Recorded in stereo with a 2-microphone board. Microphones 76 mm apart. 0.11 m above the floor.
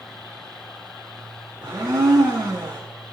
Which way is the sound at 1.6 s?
70° right (ahead or behind).